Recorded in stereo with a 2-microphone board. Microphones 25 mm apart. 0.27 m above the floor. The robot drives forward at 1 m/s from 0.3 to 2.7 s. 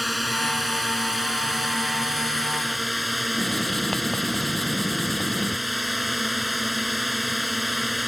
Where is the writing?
15° left (ahead or behind).